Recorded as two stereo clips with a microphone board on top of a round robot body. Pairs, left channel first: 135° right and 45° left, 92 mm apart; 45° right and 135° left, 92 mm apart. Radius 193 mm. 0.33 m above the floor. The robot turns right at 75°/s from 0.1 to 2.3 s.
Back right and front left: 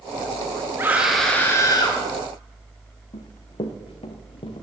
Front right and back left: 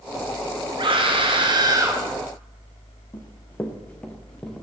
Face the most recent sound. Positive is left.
turn(degrees=-125)